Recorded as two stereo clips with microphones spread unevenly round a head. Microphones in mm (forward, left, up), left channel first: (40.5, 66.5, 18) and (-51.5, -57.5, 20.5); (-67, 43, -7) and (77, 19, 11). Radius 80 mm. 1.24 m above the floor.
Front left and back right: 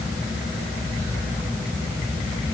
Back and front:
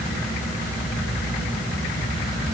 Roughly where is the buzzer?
No buzzer in this recording.